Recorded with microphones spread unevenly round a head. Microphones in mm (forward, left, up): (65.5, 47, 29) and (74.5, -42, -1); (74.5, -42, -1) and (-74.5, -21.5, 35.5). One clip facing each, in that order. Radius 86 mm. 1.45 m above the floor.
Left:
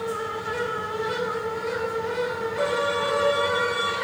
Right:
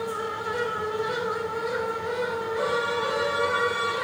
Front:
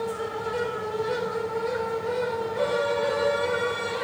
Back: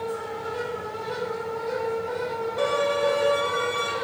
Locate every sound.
0.0 s a fan: straight ahead, 2 m
2.6 s a violin: 140° left, 1.3 m